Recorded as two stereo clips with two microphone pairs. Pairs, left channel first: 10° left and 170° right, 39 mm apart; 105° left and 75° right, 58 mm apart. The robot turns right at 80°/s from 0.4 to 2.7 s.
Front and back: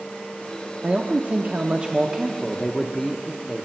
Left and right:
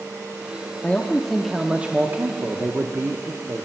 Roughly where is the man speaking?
Behind left.